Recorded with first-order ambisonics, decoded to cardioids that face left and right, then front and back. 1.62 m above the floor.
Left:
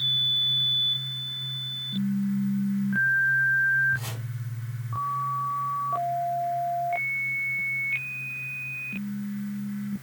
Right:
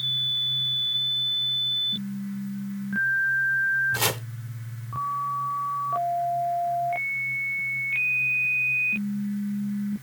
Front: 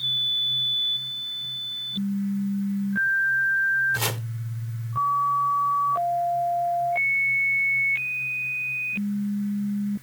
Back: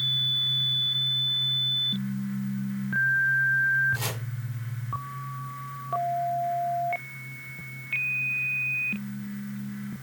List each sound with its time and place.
3.9 s chopping: 70° right, 1.1 m